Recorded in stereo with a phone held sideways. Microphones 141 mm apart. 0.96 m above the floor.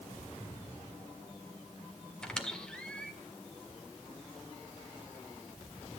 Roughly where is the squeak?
Centre.